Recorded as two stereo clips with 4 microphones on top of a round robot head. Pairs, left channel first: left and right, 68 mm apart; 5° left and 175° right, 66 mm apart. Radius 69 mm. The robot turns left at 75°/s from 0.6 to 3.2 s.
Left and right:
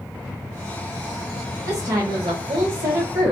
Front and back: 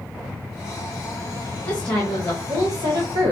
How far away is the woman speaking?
About 1.7 m.